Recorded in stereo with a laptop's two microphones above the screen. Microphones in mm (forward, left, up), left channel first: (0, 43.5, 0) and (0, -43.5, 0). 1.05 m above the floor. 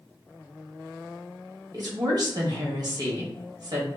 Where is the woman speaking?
50° right (ahead or behind), 1.1 m.